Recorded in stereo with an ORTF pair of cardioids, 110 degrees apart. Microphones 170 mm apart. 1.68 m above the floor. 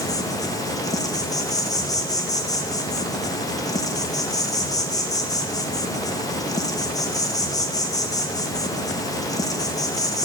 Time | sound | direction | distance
0.0 | an insect | 20° left | 0.8 m